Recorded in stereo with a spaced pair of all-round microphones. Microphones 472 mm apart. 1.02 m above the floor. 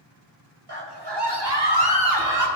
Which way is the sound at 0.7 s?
55° right (ahead or behind).